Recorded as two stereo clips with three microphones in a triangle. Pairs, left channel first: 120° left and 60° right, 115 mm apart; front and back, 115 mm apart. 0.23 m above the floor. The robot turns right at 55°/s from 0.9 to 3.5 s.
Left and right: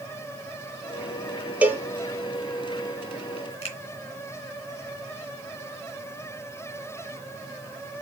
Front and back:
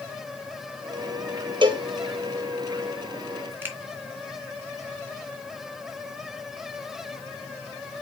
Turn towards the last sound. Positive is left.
turn(degrees=110)